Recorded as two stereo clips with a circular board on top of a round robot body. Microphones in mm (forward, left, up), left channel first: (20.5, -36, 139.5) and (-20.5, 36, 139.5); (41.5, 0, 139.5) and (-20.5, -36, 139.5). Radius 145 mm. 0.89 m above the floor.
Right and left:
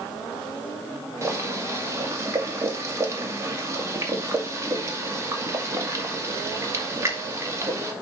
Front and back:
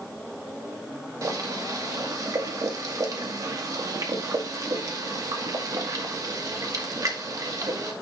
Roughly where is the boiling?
Behind.